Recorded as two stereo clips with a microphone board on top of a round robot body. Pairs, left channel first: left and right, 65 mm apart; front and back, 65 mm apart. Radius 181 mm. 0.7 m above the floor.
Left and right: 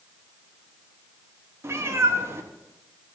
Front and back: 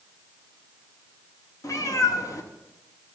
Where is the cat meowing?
40° right, 1.1 m.